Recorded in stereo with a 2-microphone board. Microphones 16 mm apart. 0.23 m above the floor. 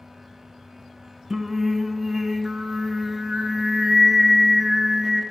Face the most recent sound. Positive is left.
turn(degrees=-25)  # may be behind; listen again after turning